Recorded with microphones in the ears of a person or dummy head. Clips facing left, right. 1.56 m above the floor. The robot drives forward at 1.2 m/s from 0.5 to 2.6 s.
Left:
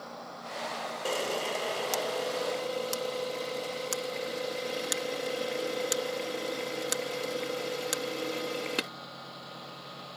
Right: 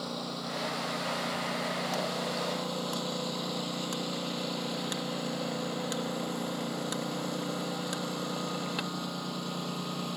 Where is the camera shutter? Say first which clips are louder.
Left 3 dB; 60° left (ahead or behind); by 8.9 s 35° left (ahead or behind).